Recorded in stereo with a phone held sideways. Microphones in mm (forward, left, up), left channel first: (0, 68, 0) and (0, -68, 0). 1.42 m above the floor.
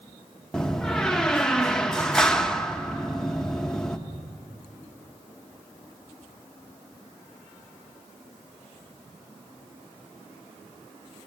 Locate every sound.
0.5 s a door slam: 5° left (ahead or behind), 0.9 m